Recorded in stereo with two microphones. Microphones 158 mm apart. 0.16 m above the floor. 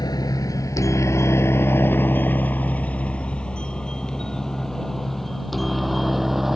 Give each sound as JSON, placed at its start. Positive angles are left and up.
{"t": 0.0, "sound": "a helicopter", "side_deg": 25}